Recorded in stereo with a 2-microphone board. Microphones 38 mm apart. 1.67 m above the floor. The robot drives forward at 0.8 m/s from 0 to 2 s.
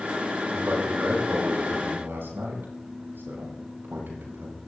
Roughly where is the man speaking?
Right.